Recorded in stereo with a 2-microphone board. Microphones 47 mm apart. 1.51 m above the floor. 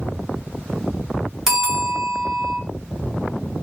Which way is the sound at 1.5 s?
5° right (ahead or behind).